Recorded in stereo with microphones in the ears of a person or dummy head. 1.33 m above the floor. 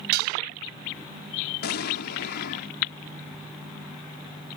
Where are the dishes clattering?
60° right (ahead or behind).